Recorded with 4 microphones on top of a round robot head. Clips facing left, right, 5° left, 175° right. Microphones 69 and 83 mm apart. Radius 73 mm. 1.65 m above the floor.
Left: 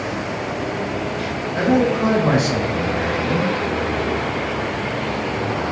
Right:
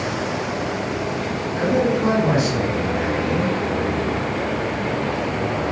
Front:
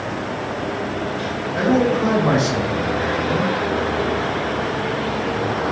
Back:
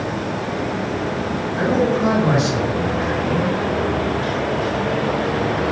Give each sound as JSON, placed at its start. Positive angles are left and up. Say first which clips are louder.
{"t": 1.6, "sound": "a man speaking", "louder": "left 2 dB, front 1 dB", "azimuth_deg": 40, "distance_m": 5.5}